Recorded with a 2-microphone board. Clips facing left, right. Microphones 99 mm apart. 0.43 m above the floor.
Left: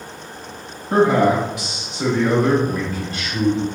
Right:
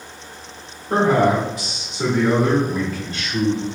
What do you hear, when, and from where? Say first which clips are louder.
0.9 s a man speaking: left 1 dB; 50° right (ahead or behind), 1.7 m; by 3.6 s 20° left (ahead or behind), 1.2 m